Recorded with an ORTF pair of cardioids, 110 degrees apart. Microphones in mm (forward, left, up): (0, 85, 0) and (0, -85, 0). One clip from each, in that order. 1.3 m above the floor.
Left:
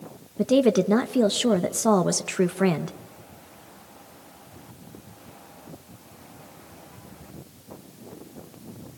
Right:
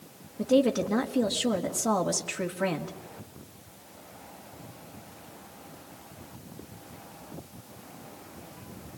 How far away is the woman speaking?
About 1.4 m.